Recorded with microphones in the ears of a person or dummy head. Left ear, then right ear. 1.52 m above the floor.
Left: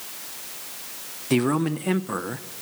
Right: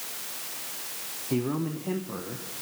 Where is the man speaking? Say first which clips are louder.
Left 7 dB; 55° left (ahead or behind), 0.7 m.